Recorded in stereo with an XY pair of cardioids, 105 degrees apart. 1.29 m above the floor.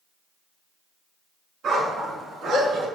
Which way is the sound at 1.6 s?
60° right.